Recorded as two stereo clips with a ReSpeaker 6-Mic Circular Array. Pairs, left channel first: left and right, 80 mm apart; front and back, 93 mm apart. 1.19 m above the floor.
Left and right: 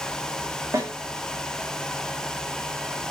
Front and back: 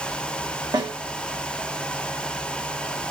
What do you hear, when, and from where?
0.7 s a snare drum: 140° right, 2.0 m